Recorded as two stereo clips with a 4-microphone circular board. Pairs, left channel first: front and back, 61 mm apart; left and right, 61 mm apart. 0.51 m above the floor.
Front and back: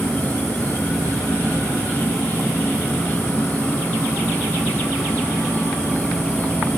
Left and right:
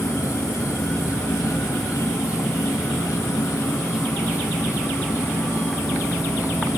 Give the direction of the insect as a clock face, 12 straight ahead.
10 o'clock.